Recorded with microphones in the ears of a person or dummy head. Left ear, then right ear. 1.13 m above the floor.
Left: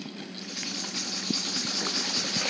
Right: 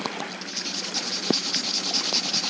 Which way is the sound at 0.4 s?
25° right (ahead or behind).